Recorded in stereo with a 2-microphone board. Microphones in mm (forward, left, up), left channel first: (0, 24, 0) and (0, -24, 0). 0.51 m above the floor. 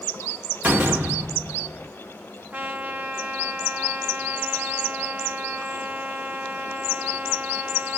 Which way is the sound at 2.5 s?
45° right (ahead or behind).